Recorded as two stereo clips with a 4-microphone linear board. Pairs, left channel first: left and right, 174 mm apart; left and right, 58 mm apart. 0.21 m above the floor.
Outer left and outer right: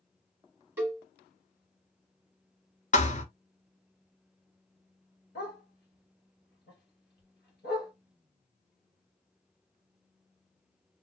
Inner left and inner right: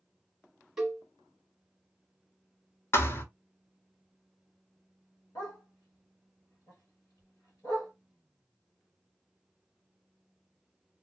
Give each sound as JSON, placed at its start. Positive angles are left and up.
{"t": 0.8, "sound": "a cowbell", "side_deg": -10, "distance_m": 1.0}
{"t": 2.9, "sound": "a thud", "side_deg": 45, "distance_m": 0.7}
{"t": 5.3, "sound": "a dog barking", "side_deg": 75, "distance_m": 1.7}